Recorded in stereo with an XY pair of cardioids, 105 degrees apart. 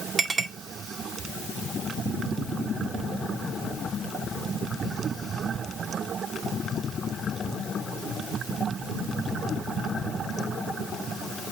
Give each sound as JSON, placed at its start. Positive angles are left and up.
{"t": 0.2, "sound": "a clink", "azimuth_deg": -45, "distance_m": 2.0}